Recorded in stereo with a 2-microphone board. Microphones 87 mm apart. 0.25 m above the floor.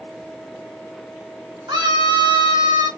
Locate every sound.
1.7 s a scream: 55° right (ahead or behind), 2.5 m